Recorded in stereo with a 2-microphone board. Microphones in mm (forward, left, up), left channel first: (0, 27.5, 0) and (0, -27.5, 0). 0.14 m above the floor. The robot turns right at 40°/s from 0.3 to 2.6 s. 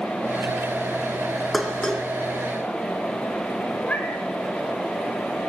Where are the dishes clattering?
Centre (ahead or behind), 1.4 m; by 2.0 s 15° left (ahead or behind), 1.4 m.